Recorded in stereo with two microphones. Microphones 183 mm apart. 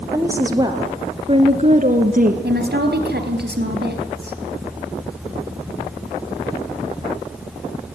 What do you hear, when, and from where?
0.1 s a woman speaking: 15° right (ahead or behind), 3.5 m; by 2.3 s 50° right (ahead or behind), 1.9 m
2.4 s a woman speaking: 65° right (ahead or behind), 3.5 m